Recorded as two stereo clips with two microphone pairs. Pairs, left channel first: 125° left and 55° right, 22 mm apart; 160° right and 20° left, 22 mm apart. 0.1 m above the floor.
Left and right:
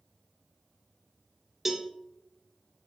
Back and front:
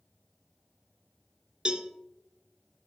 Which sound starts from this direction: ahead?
A cowbell, at 1.6 s.